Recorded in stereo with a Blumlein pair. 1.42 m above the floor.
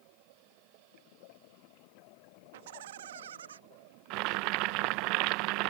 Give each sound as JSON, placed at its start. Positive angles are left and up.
{"t": 2.5, "sound": "laughter", "azimuth_deg": -55}
{"t": 4.1, "sound": "boiling", "azimuth_deg": -40}